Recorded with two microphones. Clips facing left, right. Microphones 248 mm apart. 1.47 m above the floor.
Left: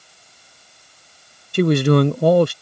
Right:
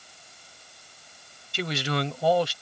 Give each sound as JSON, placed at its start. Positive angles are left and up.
{"t": 1.5, "sound": "a man speaking", "side_deg": 60}